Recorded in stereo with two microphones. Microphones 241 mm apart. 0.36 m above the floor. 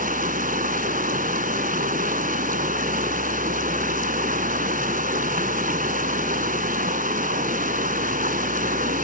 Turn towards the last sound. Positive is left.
turn(degrees=-35)  # may be behind; listen again after turning